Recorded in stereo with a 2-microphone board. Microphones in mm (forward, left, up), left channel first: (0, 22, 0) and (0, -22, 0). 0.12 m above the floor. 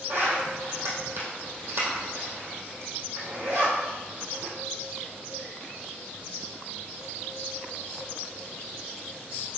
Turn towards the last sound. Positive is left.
turn(degrees=-50)  # may be behind; listen again after turning